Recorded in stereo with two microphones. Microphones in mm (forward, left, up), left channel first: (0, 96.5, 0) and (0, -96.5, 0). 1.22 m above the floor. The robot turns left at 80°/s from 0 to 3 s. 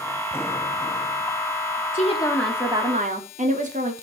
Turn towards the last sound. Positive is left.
turn(degrees=-40)